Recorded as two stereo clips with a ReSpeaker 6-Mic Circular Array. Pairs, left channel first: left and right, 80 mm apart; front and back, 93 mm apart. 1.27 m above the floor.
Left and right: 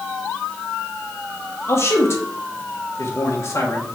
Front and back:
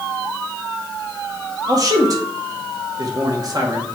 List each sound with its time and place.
1.7 s a man speaking: 140° left, 1.6 m